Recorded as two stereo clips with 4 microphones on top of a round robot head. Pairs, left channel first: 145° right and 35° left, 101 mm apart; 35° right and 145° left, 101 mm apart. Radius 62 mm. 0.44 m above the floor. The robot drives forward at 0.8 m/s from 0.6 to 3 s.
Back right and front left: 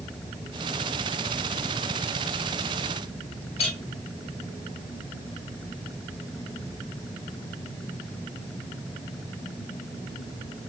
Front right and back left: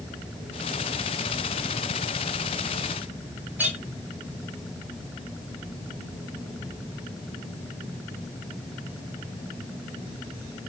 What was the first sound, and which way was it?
A clink, 145° right.